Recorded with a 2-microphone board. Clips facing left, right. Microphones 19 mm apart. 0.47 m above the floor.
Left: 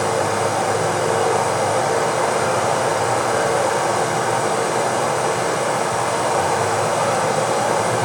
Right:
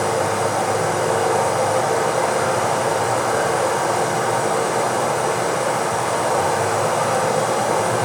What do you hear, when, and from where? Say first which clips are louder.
0.0 s running water: even; 25° left (ahead or behind), 1.7 m